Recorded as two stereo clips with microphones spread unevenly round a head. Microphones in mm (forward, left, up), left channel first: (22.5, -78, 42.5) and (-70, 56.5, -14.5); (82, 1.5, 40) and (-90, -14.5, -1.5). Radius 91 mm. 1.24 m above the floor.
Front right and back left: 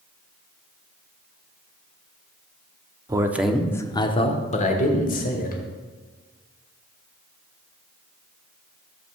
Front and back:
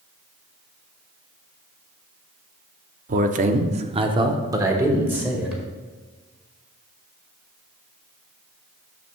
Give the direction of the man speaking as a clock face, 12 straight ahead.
6 o'clock.